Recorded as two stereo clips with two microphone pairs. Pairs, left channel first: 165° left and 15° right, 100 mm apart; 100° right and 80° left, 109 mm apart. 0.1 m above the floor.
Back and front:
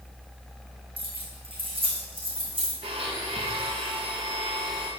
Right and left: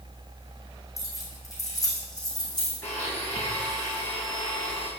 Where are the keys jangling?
40° right, 3 m; by 2.7 s 50° right, 4 m.